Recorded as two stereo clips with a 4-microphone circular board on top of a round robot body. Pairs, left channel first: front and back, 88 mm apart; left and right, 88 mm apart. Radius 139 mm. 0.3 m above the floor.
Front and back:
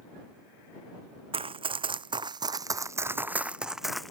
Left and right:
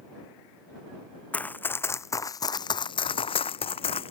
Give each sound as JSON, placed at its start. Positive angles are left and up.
{"t": 1.3, "sound": "running footsteps", "azimuth_deg": 165}